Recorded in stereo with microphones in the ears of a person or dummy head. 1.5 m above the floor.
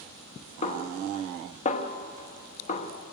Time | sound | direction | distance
0.6 | a snare drum | 35° left (ahead or behind) | 1.0 m